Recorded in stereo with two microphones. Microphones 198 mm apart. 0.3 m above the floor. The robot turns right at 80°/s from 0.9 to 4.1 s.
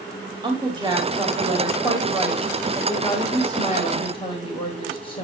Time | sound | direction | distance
0.4 | a woman speaking | 130° right | 1.4 m